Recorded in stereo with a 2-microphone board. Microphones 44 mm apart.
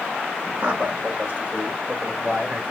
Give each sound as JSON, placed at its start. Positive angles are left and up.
{"t": 0.6, "sound": "a man speaking", "side_deg": -55, "distance_m": 4.0}